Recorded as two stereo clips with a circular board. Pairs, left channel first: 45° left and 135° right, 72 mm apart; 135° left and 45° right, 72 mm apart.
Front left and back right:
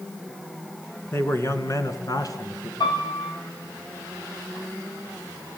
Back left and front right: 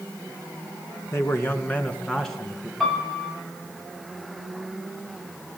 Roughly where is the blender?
I don't hear a blender.